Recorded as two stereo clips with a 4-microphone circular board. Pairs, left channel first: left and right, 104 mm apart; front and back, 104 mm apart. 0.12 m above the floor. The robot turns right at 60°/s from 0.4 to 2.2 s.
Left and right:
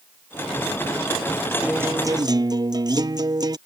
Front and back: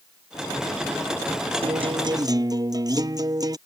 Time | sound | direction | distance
1.6 | a guitar | 170° right | ?